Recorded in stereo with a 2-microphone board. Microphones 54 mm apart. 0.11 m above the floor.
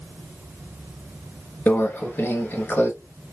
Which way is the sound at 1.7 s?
35° left (ahead or behind).